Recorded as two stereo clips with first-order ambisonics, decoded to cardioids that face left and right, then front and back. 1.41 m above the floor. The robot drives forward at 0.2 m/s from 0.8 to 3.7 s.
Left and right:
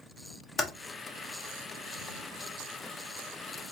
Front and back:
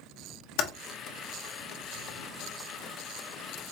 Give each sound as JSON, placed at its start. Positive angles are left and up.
{"t": 0.6, "sound": "typing on a keyboard", "azimuth_deg": 15, "distance_m": 0.7}